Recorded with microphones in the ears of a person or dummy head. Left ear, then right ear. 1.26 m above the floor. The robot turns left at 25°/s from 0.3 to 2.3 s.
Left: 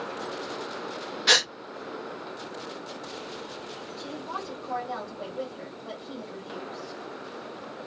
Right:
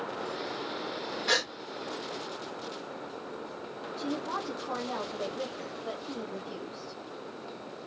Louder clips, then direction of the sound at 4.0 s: Right 2 dB; 10° right (ahead or behind).